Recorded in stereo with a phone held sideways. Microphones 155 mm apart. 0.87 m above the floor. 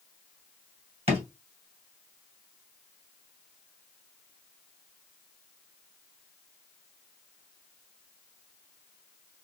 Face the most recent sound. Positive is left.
turn(degrees=-45)  # may be behind; listen again after turning